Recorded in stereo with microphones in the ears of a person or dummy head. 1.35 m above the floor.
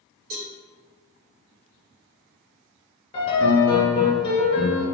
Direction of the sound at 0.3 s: 70° right (ahead or behind).